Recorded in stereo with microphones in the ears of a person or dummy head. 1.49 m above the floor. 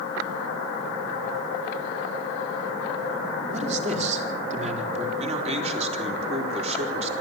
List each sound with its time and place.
3.5 s a man speaking: 40° right (ahead or behind), 4.5 m
5.2 s a man speaking: 40° right (ahead or behind), 4 m